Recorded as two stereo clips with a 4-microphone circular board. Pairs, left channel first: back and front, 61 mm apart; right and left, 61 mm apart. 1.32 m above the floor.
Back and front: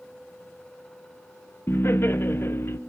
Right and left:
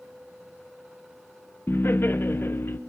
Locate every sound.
1.7 s laughter: 135° right, 0.9 m